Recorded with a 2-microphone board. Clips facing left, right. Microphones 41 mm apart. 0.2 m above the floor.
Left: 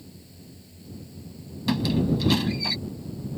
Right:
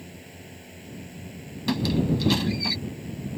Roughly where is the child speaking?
I don't hear a child speaking.